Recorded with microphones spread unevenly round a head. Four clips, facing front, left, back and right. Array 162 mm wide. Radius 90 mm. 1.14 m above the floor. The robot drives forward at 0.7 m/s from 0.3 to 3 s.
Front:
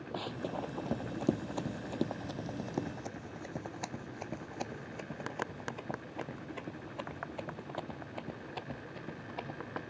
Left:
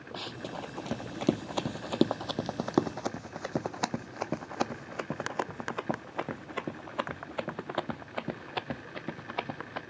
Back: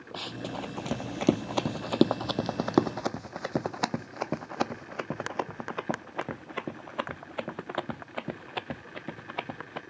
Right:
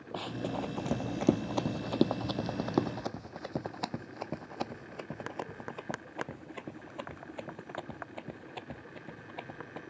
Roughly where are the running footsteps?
Ahead right.